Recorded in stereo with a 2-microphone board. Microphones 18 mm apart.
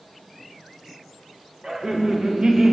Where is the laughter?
40° right (ahead or behind), 1.6 m; by 2.7 s 55° right (ahead or behind), 1.4 m.